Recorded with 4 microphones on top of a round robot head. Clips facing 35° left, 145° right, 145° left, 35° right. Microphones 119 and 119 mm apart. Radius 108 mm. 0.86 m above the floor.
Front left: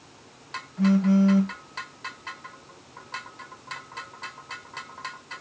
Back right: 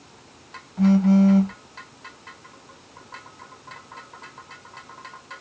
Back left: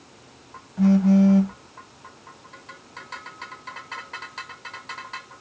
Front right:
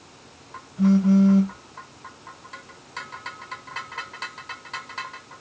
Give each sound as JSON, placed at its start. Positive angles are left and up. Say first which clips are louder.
{"t": 0.8, "sound": "a phone buzzing", "louder": "back right 3 dB, back left 1 dB", "azimuth_deg": 165, "distance_m": 1.4}